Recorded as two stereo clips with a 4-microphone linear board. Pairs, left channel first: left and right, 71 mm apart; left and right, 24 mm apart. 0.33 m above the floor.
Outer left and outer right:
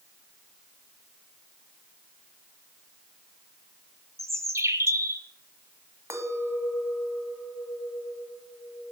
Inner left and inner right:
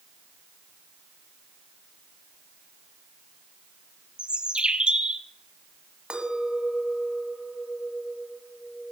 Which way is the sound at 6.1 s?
35° right (ahead or behind).